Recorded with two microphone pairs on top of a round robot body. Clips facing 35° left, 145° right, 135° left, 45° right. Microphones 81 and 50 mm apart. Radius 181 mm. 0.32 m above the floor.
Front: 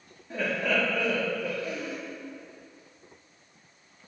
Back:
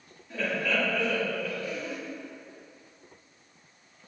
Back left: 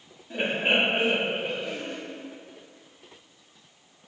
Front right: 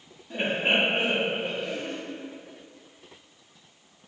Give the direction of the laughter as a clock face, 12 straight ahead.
10 o'clock.